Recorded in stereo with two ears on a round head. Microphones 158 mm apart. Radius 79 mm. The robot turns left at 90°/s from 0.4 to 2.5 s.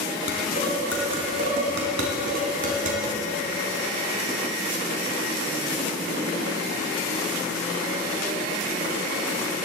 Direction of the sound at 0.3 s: 55° left (ahead or behind).